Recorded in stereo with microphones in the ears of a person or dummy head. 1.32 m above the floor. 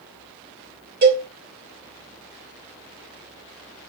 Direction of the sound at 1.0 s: 45° right (ahead or behind).